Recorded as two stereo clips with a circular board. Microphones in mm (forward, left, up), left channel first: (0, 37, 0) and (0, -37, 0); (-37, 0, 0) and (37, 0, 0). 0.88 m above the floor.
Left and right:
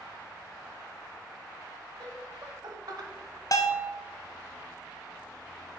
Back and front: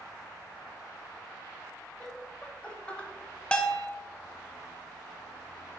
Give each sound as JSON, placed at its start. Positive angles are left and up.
{"t": 2.0, "sound": "laughter", "azimuth_deg": -105, "distance_m": 2.0}
{"t": 3.5, "sound": "a bell", "azimuth_deg": 105, "distance_m": 0.7}